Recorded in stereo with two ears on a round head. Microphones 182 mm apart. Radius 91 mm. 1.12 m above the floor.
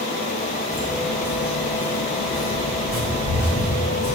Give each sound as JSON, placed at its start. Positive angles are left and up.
{"t": 0.7, "sound": "footsteps", "side_deg": 20, "distance_m": 4.0}